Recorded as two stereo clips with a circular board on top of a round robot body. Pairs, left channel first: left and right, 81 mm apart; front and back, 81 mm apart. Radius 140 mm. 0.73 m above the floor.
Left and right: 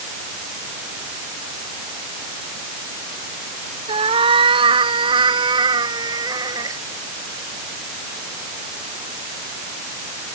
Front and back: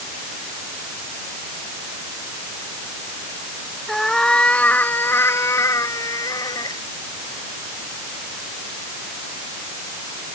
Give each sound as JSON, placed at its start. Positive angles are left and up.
{"t": 3.9, "sound": "a cat meowing", "azimuth_deg": -85}